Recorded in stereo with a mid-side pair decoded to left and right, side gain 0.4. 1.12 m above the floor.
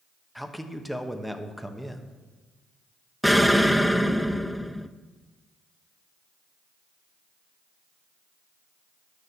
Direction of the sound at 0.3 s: Straight ahead.